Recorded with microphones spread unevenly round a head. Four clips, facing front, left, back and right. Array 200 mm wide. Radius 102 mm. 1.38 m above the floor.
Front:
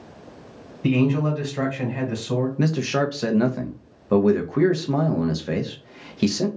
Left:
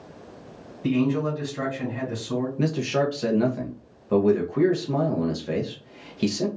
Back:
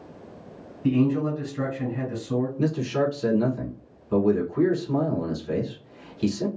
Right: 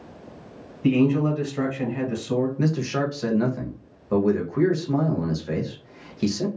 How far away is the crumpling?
I don't hear crumpling.